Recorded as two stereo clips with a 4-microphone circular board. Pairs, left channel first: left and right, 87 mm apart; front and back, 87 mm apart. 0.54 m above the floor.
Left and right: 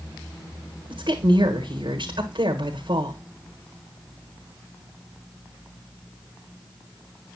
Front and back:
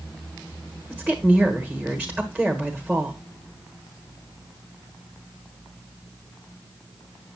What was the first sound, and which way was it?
A woman speaking, 105° right.